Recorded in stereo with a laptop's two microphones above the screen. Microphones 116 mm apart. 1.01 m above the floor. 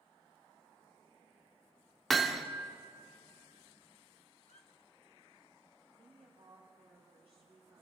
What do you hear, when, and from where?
2.1 s hammering: centre (ahead or behind), 0.6 m
4.4 s a squeak: 75° left (ahead or behind), 0.8 m
5.9 s a woman speaking: 55° right (ahead or behind), 5 m